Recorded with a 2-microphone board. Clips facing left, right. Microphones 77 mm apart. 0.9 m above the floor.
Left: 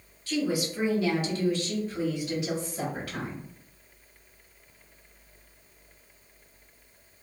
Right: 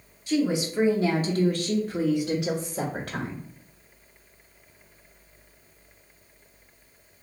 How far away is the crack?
I don't hear a crack.